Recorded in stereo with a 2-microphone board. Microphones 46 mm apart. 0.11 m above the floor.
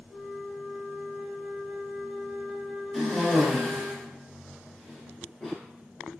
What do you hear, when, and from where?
0.1 s a flute: 5° right (ahead or behind), 0.6 m
2.9 s a cough: centre (ahead or behind), 1.4 m